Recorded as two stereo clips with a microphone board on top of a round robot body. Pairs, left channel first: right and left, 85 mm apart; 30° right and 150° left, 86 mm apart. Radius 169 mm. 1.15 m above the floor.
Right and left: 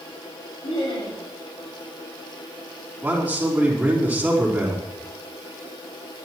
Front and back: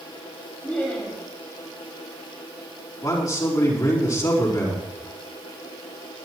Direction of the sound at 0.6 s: 105° right.